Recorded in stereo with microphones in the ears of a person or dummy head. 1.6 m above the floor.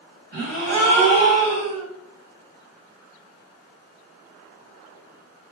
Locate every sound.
0.3 s a gasp: 40° right (ahead or behind), 2.0 m